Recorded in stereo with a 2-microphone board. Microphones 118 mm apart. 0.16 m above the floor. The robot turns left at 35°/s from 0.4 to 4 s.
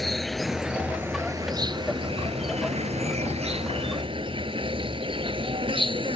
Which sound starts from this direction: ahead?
An insect, at 0.0 s.